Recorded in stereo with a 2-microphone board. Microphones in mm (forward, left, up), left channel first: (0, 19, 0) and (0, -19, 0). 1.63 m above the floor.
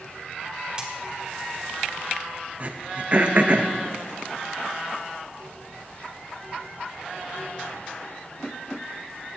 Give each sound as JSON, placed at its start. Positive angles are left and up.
{"t": 0.8, "sound": "a dropped coin", "side_deg": -20, "distance_m": 1.6}
{"t": 2.6, "sound": "throat clearing", "side_deg": -40, "distance_m": 0.7}